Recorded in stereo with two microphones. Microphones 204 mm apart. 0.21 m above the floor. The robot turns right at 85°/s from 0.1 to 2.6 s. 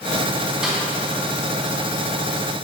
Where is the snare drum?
5° right (ahead or behind), 2 m; by 0.8 s 10° left (ahead or behind), 2 m.